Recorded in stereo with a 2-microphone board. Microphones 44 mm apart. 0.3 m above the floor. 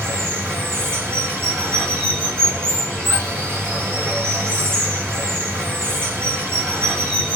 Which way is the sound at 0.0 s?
60° right (ahead or behind).